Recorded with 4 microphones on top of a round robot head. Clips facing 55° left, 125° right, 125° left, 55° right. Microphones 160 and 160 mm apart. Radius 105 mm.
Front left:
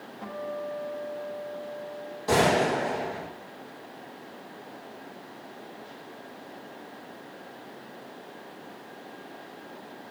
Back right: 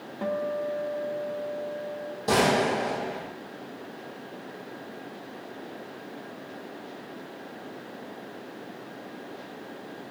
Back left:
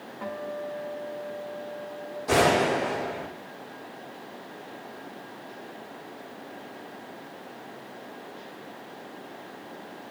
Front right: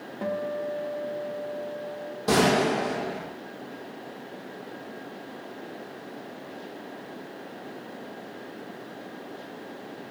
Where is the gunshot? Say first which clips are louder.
Even, even; 75° right, 7 m.